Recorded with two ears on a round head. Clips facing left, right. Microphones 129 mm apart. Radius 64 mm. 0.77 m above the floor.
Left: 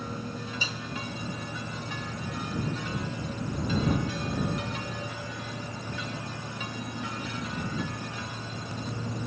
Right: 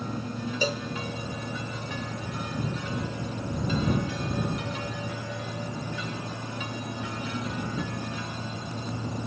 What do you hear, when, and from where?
0.6 s a cowbell: 35° right (ahead or behind)